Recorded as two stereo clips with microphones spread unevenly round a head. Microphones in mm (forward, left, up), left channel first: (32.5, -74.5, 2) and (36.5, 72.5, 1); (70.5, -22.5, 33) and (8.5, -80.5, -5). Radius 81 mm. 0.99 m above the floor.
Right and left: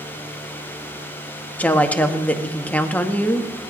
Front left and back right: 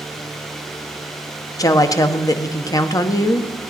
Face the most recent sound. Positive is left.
turn(degrees=-10)